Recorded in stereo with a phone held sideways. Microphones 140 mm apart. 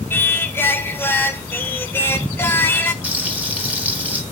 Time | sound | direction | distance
0.1 | singing | 15° left (ahead or behind) | 1.0 m
3.0 | frying | 10° right (ahead or behind) | 1.5 m